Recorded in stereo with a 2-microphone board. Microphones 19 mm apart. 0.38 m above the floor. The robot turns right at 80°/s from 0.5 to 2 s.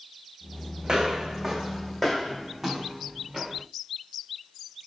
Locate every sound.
0.8 s footsteps: 50° right (ahead or behind), 1.0 m; by 3.6 s 35° right (ahead or behind), 1.6 m